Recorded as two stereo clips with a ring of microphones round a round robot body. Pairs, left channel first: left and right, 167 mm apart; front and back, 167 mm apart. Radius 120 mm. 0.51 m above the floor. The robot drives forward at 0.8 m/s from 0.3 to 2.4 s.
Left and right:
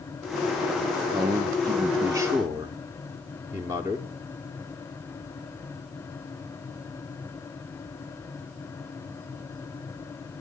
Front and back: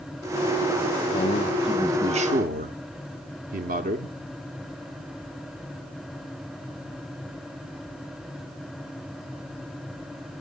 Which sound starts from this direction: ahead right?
A man speaking, at 1.1 s.